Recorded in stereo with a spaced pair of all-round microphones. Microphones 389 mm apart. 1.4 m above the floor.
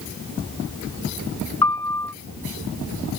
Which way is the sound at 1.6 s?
60° left (ahead or behind).